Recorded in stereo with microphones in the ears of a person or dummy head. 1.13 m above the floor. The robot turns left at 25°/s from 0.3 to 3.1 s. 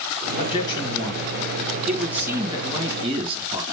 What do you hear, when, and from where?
0.4 s a man speaking: 35° left, 1.7 m; by 3.6 s 35° right, 1.7 m